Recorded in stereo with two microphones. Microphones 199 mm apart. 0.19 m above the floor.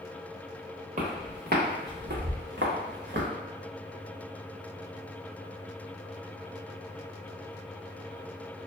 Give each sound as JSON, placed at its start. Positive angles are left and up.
{"t": 1.0, "sound": "footsteps", "side_deg": -40, "distance_m": 1.3}